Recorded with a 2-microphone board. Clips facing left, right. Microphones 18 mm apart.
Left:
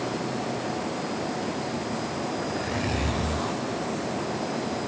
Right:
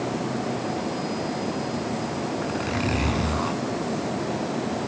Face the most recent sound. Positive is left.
turn(degrees=-40)  # may be behind; listen again after turning